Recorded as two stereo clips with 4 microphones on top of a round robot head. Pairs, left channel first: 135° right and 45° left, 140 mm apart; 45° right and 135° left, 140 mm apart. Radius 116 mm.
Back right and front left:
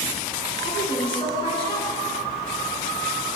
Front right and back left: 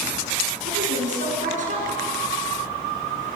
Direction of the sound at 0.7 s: 170° left.